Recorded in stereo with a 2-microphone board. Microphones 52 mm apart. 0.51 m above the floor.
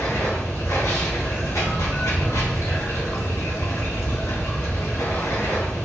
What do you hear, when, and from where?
0.0 s running water: 70° left (ahead or behind), 1.7 m